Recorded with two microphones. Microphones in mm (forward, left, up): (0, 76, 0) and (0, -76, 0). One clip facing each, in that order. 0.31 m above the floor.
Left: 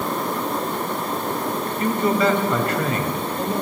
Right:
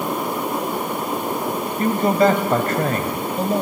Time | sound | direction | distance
1.8 | a man speaking | 45° right (ahead or behind) | 1.7 m